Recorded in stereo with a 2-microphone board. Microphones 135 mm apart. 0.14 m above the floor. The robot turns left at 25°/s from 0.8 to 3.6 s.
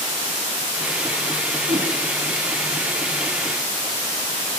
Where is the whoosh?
60° right (ahead or behind), 9 m; by 1.9 s 65° right (ahead or behind), 9 m.